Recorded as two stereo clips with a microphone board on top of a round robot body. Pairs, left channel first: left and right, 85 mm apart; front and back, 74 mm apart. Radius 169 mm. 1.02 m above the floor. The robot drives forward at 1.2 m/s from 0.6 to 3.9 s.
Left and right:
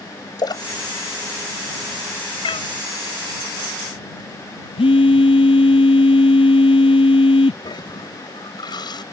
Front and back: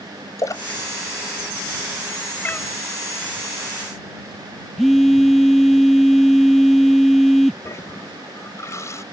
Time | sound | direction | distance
0.4 | a splash | 50° left | ?
2.4 | a cat meowing | 70° left | ?
4.8 | a phone buzzing | 90° left | ?
7.6 | a toilet flushing | 55° left | ?